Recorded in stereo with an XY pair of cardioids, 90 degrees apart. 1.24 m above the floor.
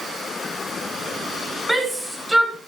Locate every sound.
1.7 s a shout: 5° right, 8 m